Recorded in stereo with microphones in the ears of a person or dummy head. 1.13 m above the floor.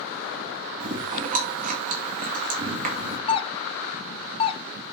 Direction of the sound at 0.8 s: 40° right (ahead or behind).